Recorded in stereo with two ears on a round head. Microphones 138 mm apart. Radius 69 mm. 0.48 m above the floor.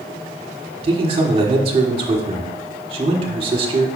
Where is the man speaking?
40° right (ahead or behind), 1.5 m.